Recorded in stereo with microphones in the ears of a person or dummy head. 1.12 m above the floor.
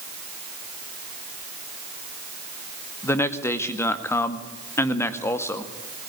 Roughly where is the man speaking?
Centre.